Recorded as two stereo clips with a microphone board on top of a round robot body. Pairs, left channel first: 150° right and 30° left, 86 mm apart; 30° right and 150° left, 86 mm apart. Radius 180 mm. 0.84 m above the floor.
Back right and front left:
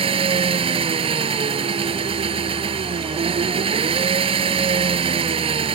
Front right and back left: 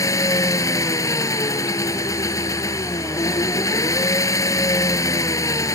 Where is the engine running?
25° left.